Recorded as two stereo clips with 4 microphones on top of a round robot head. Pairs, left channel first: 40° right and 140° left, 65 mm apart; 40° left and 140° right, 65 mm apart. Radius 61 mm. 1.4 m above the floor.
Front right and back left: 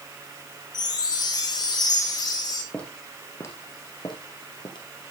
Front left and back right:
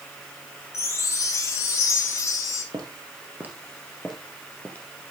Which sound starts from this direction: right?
Footsteps, at 2.7 s.